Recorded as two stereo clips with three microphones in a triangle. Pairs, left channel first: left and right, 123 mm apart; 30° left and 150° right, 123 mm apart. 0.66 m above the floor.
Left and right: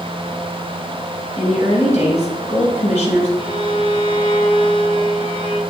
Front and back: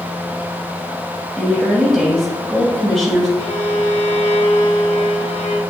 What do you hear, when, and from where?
1.4 s a woman speaking: 120° left, 3 m
3.4 s a violin: 45° left, 1.3 m